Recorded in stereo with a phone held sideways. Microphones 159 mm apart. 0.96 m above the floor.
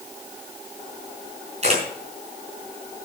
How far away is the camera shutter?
About 5.5 m.